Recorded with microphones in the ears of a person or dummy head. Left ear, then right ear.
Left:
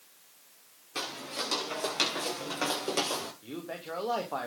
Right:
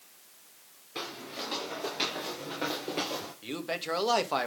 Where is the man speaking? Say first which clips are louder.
Right 6 dB; 75° right (ahead or behind), 2.0 m.